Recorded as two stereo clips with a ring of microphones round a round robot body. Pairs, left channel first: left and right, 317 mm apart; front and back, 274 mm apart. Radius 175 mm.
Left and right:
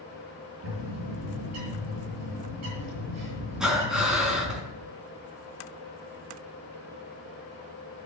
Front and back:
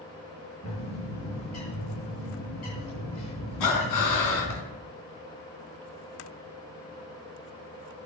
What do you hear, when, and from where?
0.6 s a bird: 45° right, 8.5 m
3.6 s breathing: straight ahead, 4 m